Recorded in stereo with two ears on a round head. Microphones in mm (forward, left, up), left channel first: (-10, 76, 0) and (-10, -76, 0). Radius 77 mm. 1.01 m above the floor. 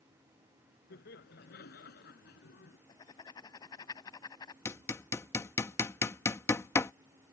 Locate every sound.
0.9 s laughter: 65° left (ahead or behind); by 2.8 s 70° left (ahead or behind)
2.9 s writing: 25° left (ahead or behind)
4.7 s hammering: 15° left (ahead or behind)